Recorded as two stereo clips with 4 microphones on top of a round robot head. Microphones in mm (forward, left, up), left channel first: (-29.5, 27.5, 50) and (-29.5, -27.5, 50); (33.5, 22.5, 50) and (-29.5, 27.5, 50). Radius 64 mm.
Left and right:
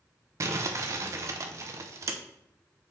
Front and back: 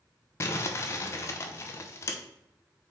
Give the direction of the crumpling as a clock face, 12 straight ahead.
2 o'clock.